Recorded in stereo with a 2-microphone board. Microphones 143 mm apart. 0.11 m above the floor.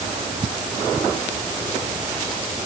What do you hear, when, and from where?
Only background noise.